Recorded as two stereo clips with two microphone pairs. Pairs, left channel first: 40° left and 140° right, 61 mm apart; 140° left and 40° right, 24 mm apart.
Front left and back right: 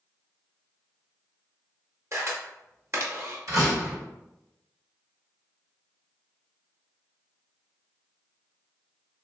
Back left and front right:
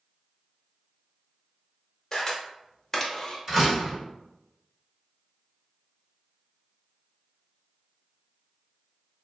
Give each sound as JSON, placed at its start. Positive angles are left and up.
{"t": 2.1, "sound": "a camera shutter", "azimuth_deg": -155, "distance_m": 0.8}
{"t": 3.5, "sound": "a door slam", "azimuth_deg": -110, "distance_m": 1.8}